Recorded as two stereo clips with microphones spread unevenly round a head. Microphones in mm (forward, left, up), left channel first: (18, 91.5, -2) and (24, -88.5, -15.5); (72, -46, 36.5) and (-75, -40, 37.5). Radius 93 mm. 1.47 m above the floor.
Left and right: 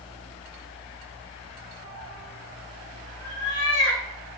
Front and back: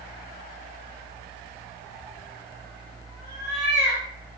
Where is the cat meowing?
80° left, 4.5 m; by 4.0 s 95° left, 5 m.